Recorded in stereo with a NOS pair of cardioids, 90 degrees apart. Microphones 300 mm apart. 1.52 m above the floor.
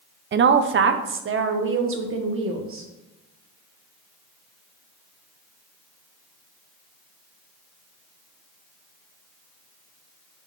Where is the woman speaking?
40° right, 0.6 m; by 2.9 s 45° right, 1.9 m.